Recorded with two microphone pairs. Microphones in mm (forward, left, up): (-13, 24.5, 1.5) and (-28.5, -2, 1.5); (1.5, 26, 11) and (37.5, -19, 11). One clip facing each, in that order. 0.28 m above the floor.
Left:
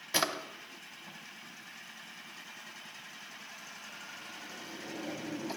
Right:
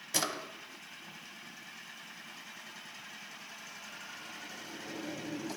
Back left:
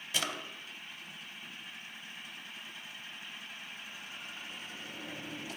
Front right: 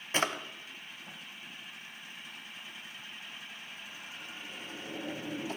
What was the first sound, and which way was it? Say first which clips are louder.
A drawer: left 3 dB, front right 5 dB; 5° right.